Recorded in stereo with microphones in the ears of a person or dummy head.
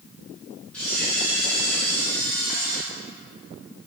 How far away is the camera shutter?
About 2.5 m.